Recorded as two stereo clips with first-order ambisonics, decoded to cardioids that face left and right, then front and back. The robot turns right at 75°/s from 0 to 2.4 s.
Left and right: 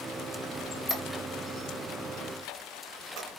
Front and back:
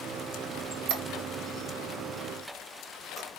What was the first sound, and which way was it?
A squeak, 155° left.